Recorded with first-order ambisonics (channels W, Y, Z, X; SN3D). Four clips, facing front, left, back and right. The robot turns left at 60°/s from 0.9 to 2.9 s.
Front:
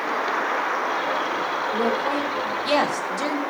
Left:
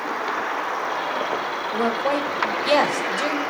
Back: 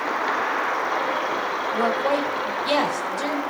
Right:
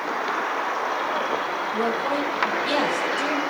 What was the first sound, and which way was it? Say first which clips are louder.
A woman speaking: left 3 dB, back 3 dB; 125° left.